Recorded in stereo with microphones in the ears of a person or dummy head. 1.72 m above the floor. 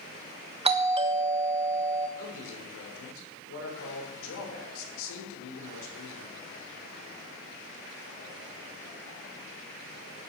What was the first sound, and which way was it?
A doorbell, 30° right (ahead or behind).